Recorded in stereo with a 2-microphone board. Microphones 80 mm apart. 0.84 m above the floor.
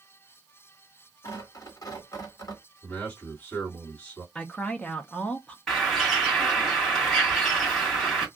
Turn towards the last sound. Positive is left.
turn(degrees=5)  # may be behind; listen again after turning